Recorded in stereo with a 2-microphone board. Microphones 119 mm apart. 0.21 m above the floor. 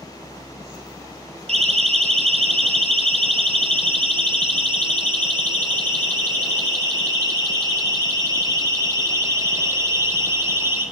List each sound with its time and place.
1.5 s a siren: 60° right (ahead or behind), 4 m; by 10.8 s 20° right (ahead or behind), 7 m